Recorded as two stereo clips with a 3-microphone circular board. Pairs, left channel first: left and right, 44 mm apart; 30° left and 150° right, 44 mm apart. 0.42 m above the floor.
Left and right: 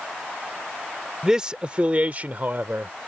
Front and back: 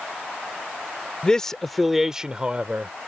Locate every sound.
1.2 s a man speaking: 20° right; by 2.9 s 105° right